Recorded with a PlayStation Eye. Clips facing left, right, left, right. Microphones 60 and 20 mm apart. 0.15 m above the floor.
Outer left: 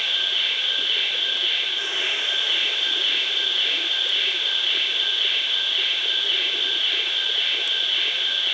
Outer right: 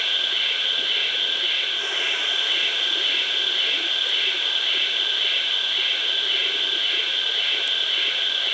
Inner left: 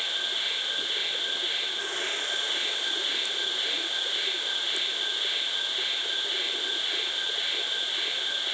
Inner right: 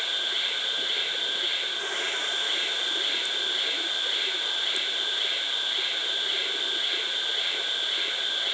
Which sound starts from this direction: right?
An insect, at 0.0 s.